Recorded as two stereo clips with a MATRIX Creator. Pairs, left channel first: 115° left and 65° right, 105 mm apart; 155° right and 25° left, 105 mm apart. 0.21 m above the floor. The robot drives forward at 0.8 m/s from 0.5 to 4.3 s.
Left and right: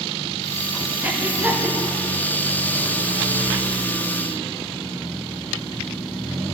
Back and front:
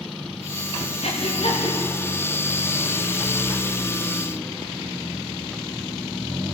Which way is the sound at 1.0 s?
140° right.